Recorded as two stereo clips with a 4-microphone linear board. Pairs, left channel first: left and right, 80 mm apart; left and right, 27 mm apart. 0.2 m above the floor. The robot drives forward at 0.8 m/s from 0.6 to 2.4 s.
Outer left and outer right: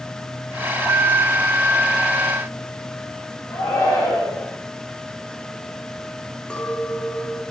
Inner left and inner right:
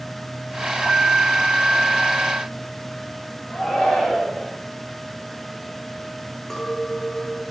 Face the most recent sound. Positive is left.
turn(degrees=15)  # may be behind; listen again after turning